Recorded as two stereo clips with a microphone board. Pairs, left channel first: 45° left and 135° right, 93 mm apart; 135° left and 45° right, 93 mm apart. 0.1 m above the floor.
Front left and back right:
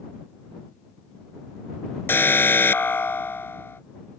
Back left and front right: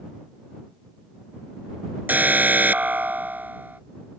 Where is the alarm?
5° left.